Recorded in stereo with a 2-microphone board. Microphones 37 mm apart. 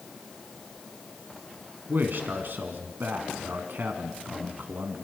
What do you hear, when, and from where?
1.9 s a man speaking: 55° right (ahead or behind), 2 m